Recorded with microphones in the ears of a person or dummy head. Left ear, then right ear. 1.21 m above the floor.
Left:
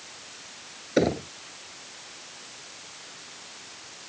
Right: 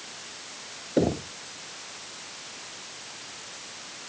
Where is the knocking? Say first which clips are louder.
Left 1 dB; 55° left (ahead or behind).